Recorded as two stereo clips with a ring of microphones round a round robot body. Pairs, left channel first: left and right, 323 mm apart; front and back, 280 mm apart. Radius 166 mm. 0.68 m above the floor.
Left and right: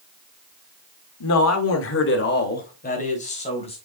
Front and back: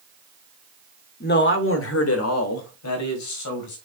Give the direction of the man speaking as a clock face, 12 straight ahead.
10 o'clock.